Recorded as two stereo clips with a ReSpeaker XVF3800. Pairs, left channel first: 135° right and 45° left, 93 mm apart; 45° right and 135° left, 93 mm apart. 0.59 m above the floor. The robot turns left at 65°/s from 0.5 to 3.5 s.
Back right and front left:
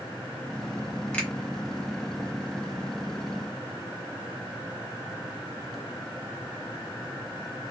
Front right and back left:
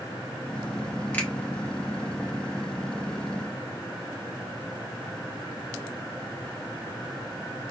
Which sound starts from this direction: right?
A finger snap, at 1.1 s.